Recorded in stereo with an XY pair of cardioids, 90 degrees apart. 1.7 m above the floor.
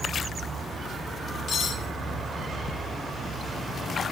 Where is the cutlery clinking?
50° left, 5 m.